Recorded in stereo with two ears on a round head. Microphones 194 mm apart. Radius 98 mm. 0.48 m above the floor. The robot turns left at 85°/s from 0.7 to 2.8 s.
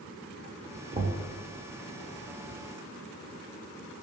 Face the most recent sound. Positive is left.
turn(degrees=165)